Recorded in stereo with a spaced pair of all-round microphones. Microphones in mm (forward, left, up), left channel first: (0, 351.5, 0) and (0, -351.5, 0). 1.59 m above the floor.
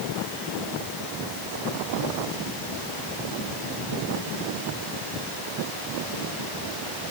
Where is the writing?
I don't hear writing.